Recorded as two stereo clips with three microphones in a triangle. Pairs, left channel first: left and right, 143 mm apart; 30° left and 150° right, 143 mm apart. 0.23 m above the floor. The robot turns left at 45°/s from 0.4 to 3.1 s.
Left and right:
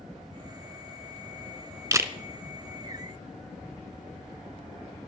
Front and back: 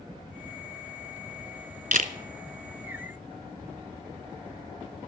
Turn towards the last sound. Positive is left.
turn(degrees=150)